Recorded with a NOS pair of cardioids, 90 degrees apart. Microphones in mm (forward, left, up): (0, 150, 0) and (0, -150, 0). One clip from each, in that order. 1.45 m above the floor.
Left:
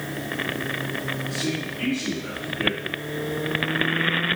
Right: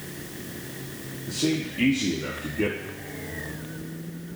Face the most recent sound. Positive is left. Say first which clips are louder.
# even
turn(degrees=-55)